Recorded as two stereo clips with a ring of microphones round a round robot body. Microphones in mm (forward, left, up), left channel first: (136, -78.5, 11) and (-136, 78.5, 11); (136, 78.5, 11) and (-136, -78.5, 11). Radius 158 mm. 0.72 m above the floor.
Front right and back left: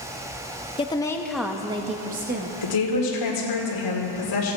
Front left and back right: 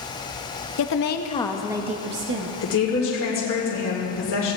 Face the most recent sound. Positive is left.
turn(degrees=-20)